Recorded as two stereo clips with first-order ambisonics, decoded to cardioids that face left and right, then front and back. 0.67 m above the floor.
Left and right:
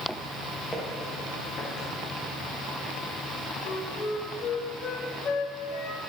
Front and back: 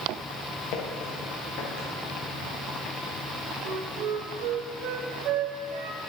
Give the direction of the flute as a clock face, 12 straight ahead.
7 o'clock.